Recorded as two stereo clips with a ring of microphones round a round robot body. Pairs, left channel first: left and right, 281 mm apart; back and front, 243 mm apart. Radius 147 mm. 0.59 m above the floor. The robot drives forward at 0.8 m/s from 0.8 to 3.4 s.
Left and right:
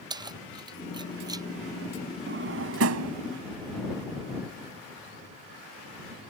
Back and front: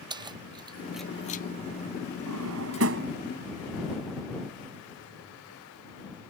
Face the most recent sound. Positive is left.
turn(degrees=-60)